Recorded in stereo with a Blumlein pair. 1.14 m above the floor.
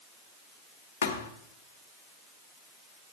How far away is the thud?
About 1.7 m.